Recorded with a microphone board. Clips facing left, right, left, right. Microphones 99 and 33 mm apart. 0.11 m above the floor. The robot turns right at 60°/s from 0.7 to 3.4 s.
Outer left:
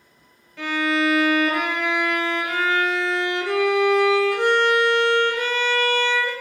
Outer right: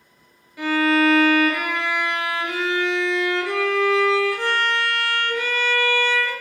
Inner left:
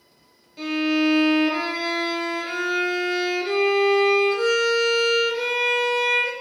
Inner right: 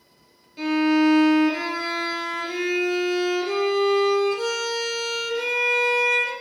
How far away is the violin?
About 0.6 m.